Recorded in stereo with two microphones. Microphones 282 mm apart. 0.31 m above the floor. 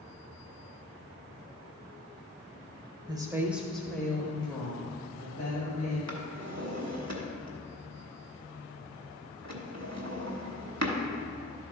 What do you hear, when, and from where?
3.1 s a woman speaking: 15° right (ahead or behind), 1.0 m; by 6.0 s 25° left (ahead or behind), 2.5 m
6.1 s a drawer: 60° right (ahead or behind), 1.2 m